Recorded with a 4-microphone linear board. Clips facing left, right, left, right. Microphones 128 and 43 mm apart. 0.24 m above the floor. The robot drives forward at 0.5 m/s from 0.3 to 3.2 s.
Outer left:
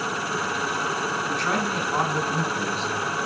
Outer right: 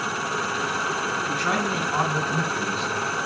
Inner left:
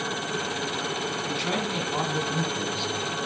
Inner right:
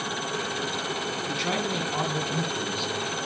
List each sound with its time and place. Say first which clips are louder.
1.3 s a man speaking: outer right 1 dB, inner right 1 dB; 5° right (ahead or behind), 2.5 m